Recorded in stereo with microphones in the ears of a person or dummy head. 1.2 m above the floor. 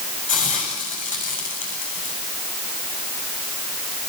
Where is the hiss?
40° left (ahead or behind), 7.5 m.